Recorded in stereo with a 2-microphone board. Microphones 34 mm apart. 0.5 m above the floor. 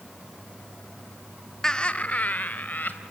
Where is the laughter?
15° left (ahead or behind), 0.8 m; by 3.0 s 65° left (ahead or behind), 2.5 m.